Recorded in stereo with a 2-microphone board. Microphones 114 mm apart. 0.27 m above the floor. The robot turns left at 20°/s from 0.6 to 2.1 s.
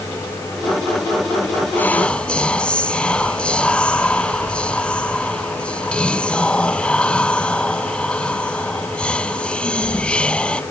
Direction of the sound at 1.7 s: 15° left (ahead or behind).